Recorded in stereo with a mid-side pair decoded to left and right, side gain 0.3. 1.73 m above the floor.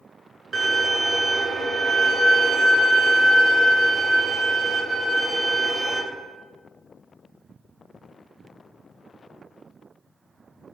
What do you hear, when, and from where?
0.5 s a violin: 60° right, 0.9 m